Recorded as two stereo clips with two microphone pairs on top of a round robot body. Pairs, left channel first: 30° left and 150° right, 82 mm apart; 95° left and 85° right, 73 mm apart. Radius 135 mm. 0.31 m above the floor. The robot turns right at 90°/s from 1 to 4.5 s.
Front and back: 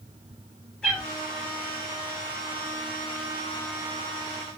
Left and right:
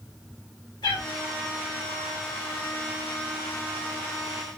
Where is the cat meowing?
115° left, 1.8 m; by 1.1 s 120° left, 1.8 m.